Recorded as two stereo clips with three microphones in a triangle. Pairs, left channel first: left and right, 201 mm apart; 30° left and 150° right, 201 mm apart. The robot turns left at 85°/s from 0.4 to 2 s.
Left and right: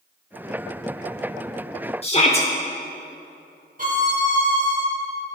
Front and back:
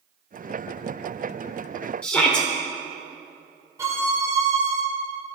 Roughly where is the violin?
Right.